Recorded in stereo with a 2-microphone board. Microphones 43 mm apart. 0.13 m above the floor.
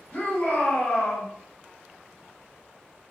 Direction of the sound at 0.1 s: 30° left (ahead or behind).